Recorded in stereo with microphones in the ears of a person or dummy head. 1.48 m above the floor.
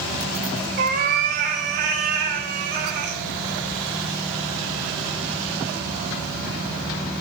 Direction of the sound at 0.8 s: 45° right (ahead or behind).